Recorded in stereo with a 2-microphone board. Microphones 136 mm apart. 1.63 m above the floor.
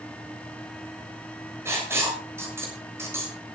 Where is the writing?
20° right (ahead or behind), 7 m.